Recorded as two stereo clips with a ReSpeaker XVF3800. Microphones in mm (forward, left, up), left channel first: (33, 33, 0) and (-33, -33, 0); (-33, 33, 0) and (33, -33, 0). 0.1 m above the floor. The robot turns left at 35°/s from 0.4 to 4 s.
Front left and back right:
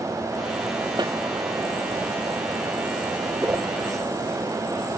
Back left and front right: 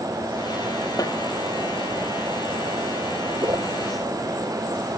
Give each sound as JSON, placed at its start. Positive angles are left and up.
{"t": 1.0, "sound": "a snare drum", "azimuth_deg": -175}
{"t": 3.4, "sound": "a whoosh", "azimuth_deg": -75}